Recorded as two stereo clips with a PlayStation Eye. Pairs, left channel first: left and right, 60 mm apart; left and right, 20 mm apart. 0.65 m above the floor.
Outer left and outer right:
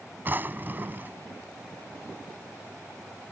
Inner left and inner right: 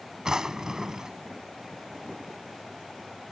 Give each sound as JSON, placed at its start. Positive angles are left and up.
{"t": 0.2, "sound": "a drawer", "side_deg": -35}